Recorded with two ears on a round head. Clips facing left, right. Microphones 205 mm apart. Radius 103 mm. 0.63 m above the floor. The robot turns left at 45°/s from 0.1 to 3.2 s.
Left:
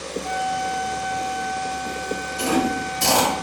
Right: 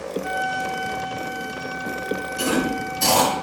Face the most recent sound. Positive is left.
turn(degrees=30)  # may be behind; listen again after turning